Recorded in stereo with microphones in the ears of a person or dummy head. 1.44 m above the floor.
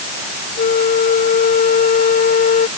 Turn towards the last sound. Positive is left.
turn(degrees=40)  # may be behind; listen again after turning